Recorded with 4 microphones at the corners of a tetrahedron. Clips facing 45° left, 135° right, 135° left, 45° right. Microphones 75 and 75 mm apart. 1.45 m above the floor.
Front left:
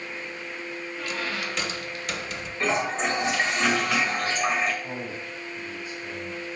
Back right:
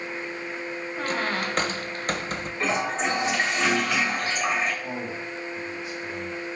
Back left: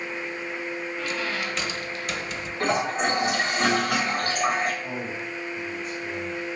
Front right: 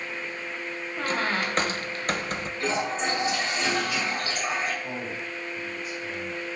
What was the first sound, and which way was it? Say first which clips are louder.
A squeak: back right 5 dB, front right 5 dB; 90° right.